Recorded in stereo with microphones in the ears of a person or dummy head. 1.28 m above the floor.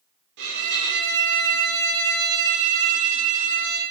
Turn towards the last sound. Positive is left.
turn(degrees=-70)  # may be behind; listen again after turning